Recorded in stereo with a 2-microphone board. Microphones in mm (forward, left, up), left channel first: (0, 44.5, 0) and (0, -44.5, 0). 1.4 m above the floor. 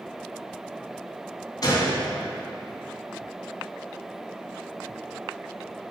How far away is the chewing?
I don't hear chewing.